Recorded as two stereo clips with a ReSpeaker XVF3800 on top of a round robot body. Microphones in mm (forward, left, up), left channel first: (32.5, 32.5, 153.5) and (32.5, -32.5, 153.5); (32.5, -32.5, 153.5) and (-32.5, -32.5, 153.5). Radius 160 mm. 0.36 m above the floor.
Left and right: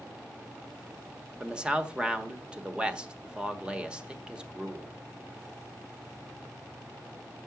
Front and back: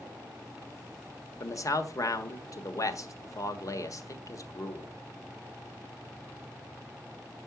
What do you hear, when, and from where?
1.4 s a man speaking: 15° right, 1.5 m